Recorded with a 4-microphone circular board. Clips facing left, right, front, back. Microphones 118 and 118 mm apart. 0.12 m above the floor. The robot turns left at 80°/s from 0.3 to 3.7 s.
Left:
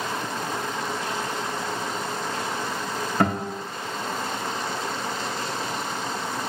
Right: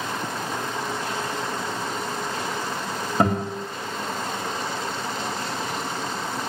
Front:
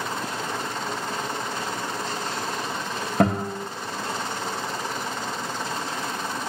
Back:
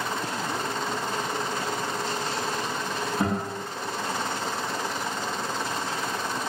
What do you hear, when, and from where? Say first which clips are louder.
3.2 s a guitar: right 2 dB, front 8 dB; 20° right, 3 m; by 3.6 s 50° right, 3 m